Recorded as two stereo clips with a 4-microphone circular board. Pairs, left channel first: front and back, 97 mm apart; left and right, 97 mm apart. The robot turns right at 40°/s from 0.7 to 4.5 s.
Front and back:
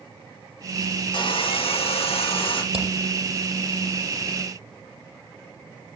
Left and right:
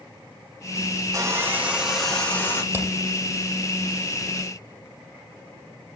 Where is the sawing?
35° right, 8 m; by 2.6 s 25° left, 8 m.